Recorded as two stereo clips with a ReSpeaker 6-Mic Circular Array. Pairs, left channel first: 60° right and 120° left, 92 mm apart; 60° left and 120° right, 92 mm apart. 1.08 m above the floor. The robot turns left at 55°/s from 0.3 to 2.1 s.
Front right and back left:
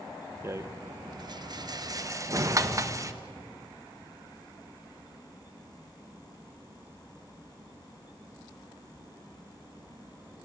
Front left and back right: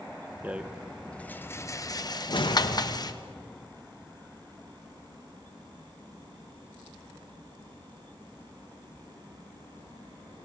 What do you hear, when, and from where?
0.4 s a rattle: 175° left, 1.1 m; by 3.1 s 85° left, 1.1 m
2.3 s a whoosh: 75° left, 1.4 m